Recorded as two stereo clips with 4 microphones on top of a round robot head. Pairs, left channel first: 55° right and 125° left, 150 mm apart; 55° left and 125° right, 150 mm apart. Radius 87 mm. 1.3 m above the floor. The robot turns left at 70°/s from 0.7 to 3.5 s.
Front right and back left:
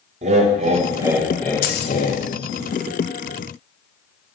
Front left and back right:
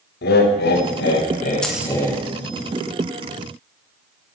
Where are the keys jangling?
25° right, 0.9 m; by 2.0 s 50° right, 0.9 m.